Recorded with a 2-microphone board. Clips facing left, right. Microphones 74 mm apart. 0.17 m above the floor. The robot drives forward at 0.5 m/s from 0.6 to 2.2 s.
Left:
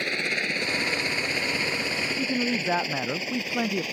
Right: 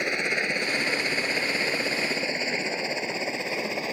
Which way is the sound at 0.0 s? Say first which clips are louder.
Right 2 dB; 15° right (ahead or behind).